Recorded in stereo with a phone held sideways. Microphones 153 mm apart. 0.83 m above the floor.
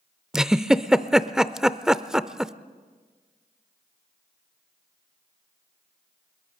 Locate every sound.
0.3 s a giggle: 5° right (ahead or behind), 0.5 m